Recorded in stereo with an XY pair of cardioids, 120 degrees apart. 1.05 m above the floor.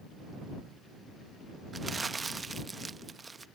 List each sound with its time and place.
1.7 s crumpling: 20° right